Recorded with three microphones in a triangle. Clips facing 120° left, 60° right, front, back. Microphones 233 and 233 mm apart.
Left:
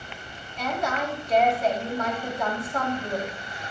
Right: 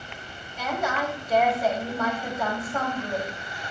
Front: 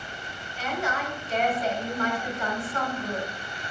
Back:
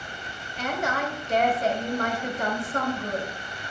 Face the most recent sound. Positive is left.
turn(degrees=-140)